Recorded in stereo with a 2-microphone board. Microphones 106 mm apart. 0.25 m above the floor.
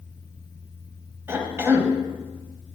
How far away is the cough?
About 1.5 m.